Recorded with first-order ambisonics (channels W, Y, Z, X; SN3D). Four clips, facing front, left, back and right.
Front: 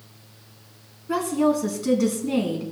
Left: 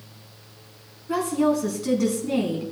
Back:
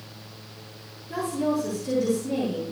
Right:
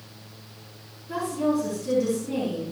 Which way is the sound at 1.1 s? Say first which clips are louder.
Left 3 dB, front 5 dB; 25° left.